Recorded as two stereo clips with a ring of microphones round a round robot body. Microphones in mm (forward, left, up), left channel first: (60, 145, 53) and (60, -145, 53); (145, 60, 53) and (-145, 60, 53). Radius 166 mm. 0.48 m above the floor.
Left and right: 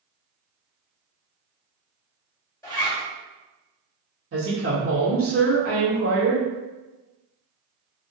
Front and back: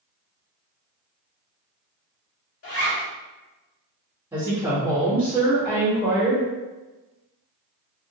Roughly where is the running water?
No running water in this recording.